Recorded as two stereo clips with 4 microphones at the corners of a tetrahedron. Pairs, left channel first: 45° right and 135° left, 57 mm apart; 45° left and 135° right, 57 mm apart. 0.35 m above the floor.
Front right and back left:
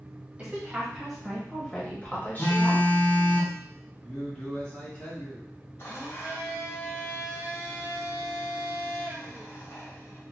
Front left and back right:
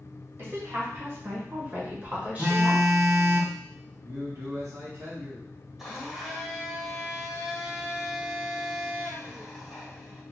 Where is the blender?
45° right, 1.9 m.